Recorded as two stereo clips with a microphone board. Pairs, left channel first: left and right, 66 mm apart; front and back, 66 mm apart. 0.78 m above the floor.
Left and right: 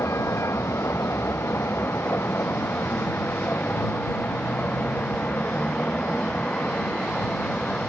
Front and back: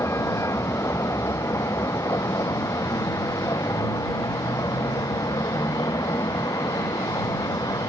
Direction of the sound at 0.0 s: 40° left.